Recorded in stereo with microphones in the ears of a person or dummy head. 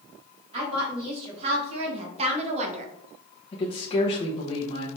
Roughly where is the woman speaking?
Right.